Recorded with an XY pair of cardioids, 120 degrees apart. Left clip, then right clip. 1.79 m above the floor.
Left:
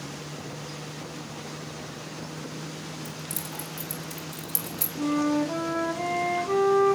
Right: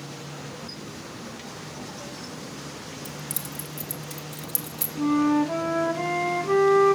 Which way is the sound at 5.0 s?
25° right.